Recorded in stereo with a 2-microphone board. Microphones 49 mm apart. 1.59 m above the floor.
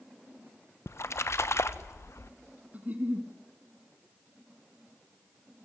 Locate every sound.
0.9 s a splash: 65° left (ahead or behind), 1.0 m
2.7 s a giggle: 30° right (ahead or behind), 3 m